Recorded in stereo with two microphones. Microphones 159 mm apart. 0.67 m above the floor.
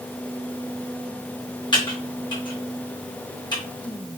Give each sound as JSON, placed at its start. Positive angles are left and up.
{"t": 1.7, "sound": "typing on a keyboard", "side_deg": 30, "distance_m": 1.2}